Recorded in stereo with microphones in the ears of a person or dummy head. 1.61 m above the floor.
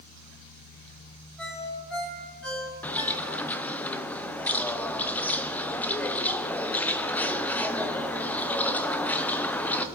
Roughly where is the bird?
Centre.